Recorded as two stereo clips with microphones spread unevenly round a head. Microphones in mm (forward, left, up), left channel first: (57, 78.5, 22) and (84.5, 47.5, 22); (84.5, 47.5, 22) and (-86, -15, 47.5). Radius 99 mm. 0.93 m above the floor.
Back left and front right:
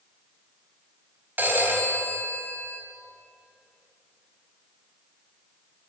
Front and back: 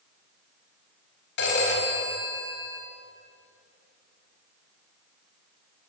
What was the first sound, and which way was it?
A phone ringing, 10° right.